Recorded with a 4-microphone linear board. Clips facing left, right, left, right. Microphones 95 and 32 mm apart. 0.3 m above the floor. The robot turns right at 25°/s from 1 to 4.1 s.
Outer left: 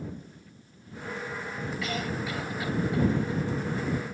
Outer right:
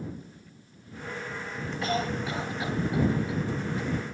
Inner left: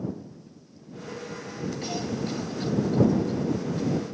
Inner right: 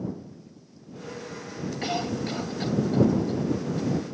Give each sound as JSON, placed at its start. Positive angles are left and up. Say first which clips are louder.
{"t": 1.8, "sound": "a cough", "louder": "outer right 5 dB, inner right 4 dB", "side_deg": -35}